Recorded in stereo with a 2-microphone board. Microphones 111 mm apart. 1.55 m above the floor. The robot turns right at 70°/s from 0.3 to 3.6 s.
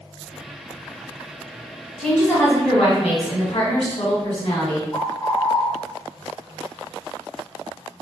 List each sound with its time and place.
2.0 s a woman speaking: 5° left, 1.6 m; by 4.8 s 115° left, 1.6 m
4.9 s a bird: 30° left (ahead or behind), 0.9 m